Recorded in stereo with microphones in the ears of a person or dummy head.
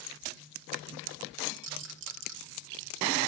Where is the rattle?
65° right (ahead or behind), 1.3 m.